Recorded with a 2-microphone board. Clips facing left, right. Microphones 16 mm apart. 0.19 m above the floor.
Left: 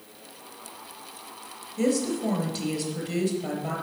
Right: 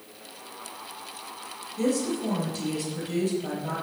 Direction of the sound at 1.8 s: 20° left (ahead or behind).